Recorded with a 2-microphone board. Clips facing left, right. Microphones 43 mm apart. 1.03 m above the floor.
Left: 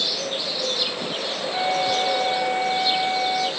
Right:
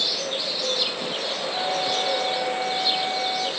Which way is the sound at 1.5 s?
40° left (ahead or behind).